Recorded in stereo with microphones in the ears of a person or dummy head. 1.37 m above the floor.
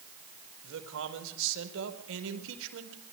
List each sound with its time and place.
0.6 s a man speaking: 75° right (ahead or behind), 4.5 m